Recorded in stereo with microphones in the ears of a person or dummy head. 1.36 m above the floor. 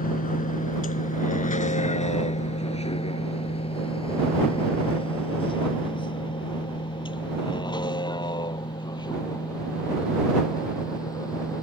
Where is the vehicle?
45° left (ahead or behind); by 11.6 s 20° left (ahead or behind).